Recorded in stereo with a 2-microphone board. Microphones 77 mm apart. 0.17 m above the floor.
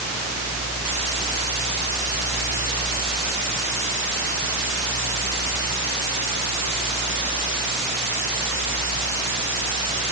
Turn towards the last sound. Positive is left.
No sound to turn to.